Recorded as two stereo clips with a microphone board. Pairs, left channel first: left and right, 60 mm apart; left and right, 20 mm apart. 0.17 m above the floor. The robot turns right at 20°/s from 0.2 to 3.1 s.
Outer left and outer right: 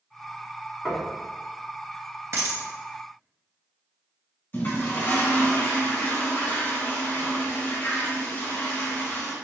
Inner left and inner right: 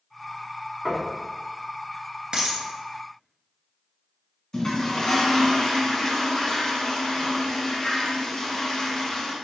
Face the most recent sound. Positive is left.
turn(degrees=40)  # may be behind; listen again after turning